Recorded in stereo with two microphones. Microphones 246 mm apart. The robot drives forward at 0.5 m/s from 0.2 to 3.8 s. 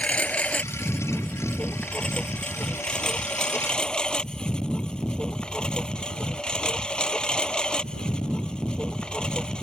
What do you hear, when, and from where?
0.0 s a lawn mower: 5° left (ahead or behind)